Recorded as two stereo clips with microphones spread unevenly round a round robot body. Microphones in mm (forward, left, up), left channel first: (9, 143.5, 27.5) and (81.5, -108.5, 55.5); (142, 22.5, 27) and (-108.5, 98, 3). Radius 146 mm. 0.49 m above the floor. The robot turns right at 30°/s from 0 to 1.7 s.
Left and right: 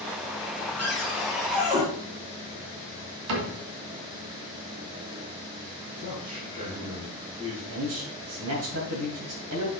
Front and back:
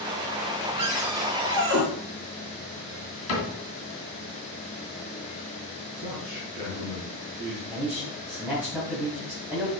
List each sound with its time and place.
0.8 s a cupboard door: 170° right, 2.0 m; by 1.8 s 140° right, 2.0 m
3.3 s a cupboard door: 65° right, 2.5 m
6.0 s a man speaking: 135° right, 3.5 m
7.7 s a man speaking: 115° right, 2.5 m